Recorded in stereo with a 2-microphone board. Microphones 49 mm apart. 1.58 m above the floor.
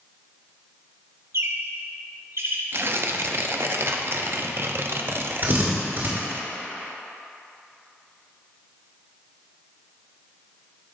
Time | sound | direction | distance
1.3 | a bird | 60° right (ahead or behind) | 0.8 m
2.7 | tearing paper | 50° right (ahead or behind) | 0.5 m
5.4 | a drill | 50° right (ahead or behind) | 2 m